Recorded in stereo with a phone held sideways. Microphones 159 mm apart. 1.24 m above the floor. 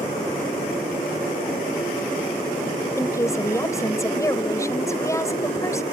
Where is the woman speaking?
20° left (ahead or behind).